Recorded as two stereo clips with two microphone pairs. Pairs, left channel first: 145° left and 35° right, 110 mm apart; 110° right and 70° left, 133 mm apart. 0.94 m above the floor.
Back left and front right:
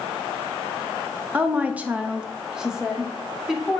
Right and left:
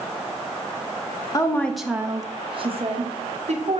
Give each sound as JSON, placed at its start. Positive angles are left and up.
{"t": 1.3, "sound": "a woman speaking", "azimuth_deg": -95, "distance_m": 0.7}